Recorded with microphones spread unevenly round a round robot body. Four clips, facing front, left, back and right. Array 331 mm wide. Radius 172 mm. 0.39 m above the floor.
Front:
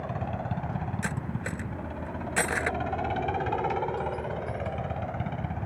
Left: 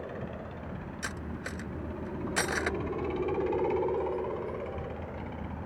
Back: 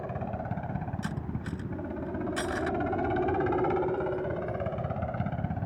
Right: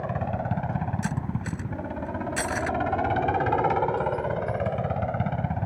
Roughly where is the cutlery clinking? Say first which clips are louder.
Right 7 dB, front 2 dB; ahead.